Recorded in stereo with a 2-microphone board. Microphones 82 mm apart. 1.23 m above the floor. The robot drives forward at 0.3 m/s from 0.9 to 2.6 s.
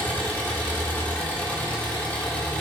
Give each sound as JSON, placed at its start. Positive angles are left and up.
{"t": 0.0, "sound": "an engine running", "side_deg": 25, "distance_m": 1.4}